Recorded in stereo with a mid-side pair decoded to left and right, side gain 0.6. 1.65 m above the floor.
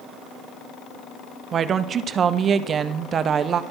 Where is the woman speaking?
40° right, 0.5 m.